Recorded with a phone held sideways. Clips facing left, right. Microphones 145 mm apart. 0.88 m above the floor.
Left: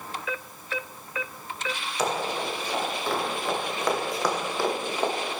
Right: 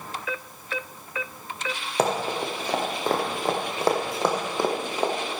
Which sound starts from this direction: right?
Running footsteps, at 2.0 s.